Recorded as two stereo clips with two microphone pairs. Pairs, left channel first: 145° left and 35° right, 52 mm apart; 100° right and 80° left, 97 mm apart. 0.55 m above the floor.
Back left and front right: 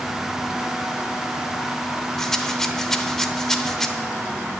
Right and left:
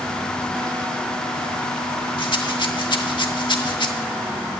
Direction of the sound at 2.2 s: 135° right.